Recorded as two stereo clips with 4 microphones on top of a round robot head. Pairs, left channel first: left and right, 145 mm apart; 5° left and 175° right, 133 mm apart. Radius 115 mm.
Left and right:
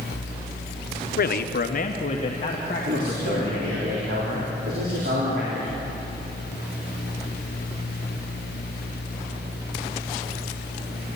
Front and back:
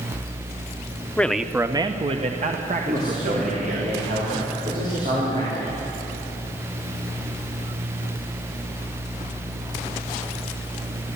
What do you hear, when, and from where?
1.2 s a man speaking: 80° left, 1.0 m; by 3.9 s 170° left, 3 m
2.9 s a man speaking: 125° right, 4 m